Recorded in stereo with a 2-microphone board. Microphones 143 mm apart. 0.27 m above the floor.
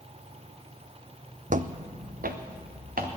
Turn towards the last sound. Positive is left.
turn(degrees=-80)